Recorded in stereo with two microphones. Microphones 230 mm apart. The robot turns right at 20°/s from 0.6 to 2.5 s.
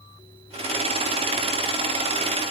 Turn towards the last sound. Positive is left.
No sound to turn to.